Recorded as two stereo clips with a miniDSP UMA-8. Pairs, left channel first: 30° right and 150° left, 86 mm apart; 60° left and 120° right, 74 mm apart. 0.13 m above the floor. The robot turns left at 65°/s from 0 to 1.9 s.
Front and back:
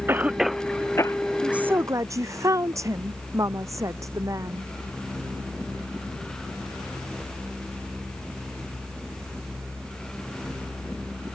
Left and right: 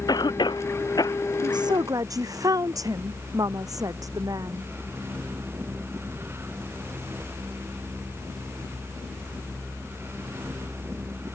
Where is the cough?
85° left; by 1.2 s 15° left.